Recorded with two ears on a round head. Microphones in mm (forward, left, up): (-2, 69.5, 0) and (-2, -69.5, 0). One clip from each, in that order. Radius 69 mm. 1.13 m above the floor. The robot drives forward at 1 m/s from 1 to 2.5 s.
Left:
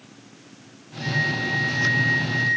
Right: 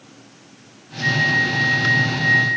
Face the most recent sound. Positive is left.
turn(degrees=-40)  # may be behind; listen again after turning